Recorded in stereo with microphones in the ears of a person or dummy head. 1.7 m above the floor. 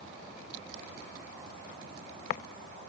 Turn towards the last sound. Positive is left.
No sound to turn to.